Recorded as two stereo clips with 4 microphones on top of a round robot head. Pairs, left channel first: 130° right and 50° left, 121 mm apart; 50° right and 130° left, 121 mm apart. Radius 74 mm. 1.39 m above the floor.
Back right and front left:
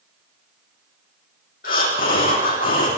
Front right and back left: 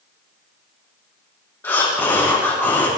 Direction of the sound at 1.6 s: 125° right.